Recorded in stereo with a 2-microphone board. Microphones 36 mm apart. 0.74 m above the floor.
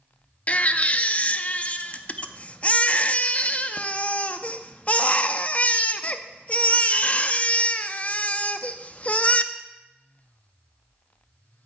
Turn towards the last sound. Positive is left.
turn(degrees=40)  # may be behind; listen again after turning